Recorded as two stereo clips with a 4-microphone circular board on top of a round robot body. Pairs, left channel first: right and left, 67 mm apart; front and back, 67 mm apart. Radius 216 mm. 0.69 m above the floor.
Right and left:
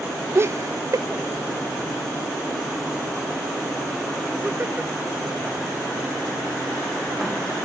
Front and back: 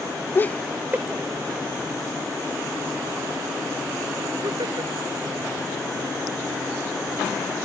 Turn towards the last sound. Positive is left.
turn(degrees=160)